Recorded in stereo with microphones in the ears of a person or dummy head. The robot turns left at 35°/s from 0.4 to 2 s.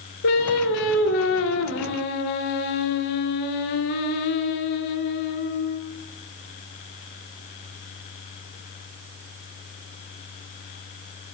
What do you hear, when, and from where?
0.2 s singing: 125° left, 1.4 m; by 5.8 s 70° left, 1.4 m